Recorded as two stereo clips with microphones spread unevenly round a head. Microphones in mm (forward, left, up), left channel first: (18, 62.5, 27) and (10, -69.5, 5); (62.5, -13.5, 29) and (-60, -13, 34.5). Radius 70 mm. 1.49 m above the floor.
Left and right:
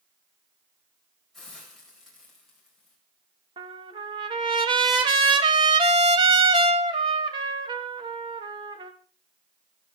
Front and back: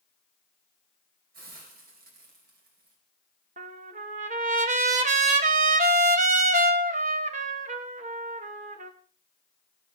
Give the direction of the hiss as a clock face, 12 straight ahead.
6 o'clock.